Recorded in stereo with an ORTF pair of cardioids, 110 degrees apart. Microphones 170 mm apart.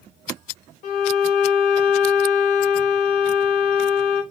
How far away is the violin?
About 1.5 m.